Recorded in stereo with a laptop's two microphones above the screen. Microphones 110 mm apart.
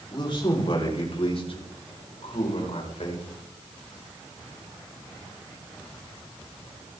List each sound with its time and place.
0.1 s a man speaking: 45° left (ahead or behind), 3.5 m; by 3.2 s 70° left (ahead or behind), 5 m